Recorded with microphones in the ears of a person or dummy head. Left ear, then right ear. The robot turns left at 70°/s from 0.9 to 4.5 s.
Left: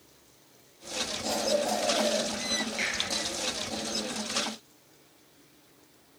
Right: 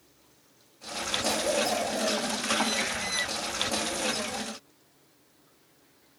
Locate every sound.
1.2 s a cough: 105° right, 0.5 m; by 2.2 s 175° right, 0.5 m
2.8 s a finger snap: centre (ahead or behind), 1.4 m; by 2.9 s 10° right (ahead or behind), 1.4 m